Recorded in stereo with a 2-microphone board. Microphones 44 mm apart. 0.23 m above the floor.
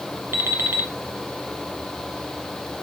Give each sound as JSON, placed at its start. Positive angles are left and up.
{"t": 0.3, "sound": "an alarm clock", "side_deg": -65, "distance_m": 1.5}